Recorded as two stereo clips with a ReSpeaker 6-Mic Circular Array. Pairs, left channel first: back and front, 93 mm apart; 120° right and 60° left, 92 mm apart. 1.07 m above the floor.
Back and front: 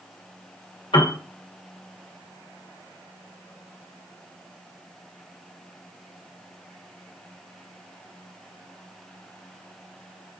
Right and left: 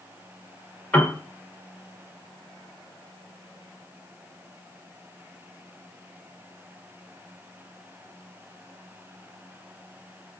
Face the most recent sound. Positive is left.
turn(degrees=165)